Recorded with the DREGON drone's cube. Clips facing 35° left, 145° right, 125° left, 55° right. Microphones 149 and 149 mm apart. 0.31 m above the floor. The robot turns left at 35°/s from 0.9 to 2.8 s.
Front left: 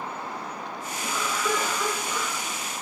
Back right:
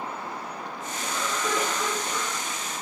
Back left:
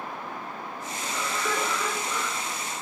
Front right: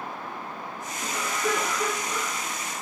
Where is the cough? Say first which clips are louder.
Front left 1 dB, front right 2 dB; 70° right, 3.5 m; by 2.3 s 115° right, 3.5 m.